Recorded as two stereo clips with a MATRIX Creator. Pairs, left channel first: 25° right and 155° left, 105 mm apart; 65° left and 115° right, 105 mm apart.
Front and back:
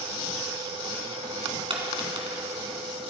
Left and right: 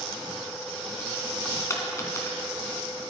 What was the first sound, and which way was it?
A dropped coin, 130° left.